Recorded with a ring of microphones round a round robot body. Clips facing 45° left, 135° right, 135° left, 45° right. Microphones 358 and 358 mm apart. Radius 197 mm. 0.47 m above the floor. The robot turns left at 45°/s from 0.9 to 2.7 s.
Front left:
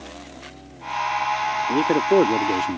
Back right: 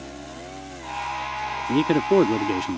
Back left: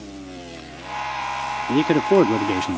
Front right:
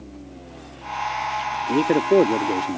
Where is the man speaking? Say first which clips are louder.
Even, back left 1 dB; 165° right; by 2.8 s 145° left.